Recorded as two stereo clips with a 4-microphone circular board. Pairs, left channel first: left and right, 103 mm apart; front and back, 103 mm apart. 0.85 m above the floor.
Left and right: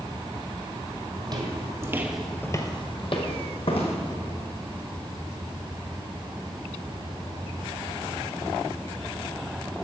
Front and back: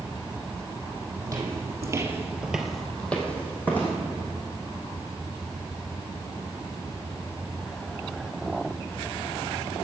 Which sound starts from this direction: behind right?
Footsteps, at 1.2 s.